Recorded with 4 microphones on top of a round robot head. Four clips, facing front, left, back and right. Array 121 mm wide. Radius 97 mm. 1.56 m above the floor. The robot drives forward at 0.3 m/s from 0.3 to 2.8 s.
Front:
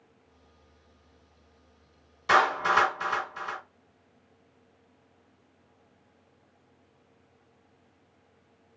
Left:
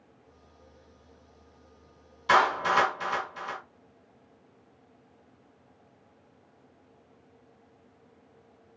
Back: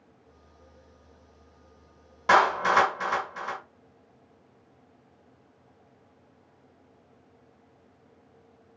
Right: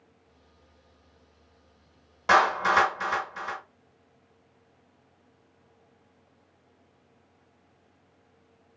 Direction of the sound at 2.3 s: 135° right.